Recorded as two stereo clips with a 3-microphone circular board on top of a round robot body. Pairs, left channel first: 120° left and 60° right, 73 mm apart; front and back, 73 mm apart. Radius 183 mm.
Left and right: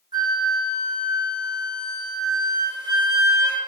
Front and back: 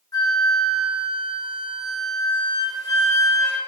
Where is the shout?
I don't hear a shout.